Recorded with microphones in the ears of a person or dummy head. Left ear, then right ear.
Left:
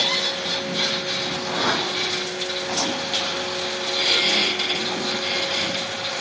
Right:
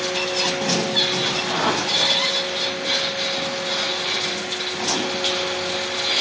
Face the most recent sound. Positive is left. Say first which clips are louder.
# right 1 dB
turn(degrees=-30)  # may be behind; listen again after turning